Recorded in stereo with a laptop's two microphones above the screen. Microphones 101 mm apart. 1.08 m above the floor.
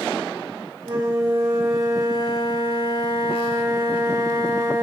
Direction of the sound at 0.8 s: 45° right (ahead or behind).